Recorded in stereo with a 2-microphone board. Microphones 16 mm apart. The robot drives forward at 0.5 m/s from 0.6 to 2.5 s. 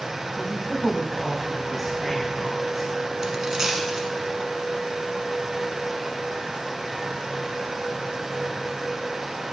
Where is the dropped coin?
45° right (ahead or behind), 1.2 m.